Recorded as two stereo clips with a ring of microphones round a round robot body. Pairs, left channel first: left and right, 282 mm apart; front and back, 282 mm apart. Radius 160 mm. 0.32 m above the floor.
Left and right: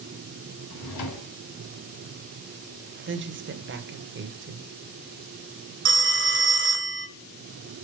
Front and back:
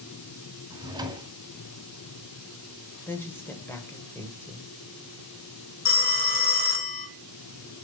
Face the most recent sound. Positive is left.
turn(degrees=-55)